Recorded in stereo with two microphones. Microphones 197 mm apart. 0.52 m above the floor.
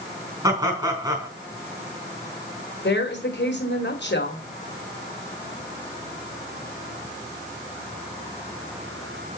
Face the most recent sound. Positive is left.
turn(degrees=65)  # may be behind; listen again after turning